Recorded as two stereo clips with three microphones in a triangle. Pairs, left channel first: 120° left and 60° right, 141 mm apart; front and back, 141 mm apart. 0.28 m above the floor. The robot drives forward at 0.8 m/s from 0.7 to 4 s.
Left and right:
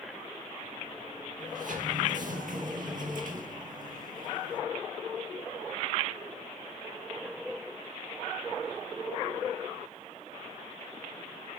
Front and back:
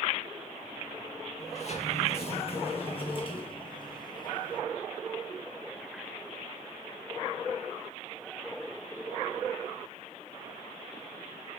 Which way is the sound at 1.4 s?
40° right.